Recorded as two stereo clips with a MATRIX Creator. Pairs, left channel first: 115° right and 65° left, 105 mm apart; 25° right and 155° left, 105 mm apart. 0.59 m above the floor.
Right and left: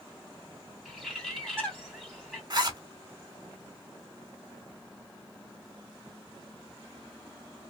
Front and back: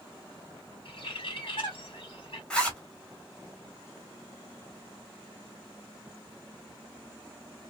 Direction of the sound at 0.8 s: 25° right.